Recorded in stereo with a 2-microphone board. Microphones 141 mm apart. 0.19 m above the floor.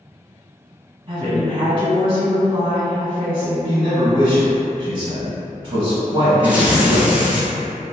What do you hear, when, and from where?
1.1 s a woman speaking: 35° right (ahead or behind), 1.2 m
3.6 s a man speaking: 35° right (ahead or behind), 1.4 m
6.4 s tearing paper: 10° right (ahead or behind), 0.8 m